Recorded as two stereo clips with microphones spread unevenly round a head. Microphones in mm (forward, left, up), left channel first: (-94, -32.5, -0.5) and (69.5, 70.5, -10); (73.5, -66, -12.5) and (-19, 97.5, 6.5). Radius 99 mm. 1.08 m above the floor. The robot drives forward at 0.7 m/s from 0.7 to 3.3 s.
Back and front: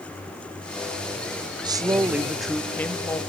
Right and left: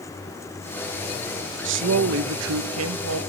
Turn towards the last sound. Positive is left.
turn(degrees=140)